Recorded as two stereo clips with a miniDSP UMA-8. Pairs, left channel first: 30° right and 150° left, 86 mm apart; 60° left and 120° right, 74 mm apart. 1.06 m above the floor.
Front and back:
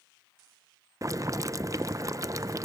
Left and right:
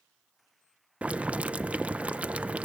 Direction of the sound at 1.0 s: 175° left.